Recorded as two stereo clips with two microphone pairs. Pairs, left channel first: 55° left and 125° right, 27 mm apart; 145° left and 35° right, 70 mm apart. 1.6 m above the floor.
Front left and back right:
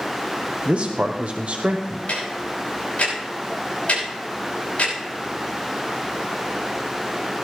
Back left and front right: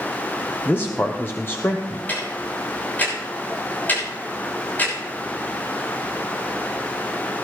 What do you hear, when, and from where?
0.7 s a man speaking: 160° right, 0.9 m
2.1 s ticking: 80° left, 6 m